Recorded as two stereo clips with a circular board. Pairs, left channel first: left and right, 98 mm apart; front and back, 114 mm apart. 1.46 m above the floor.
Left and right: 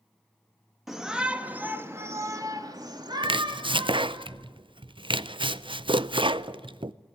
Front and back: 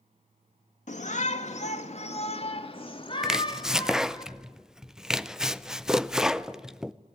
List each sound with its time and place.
0.9 s a shout: 5° right, 2.5 m; by 4.2 s 55° right, 3.5 m
3.2 s chopping: 95° right, 0.5 m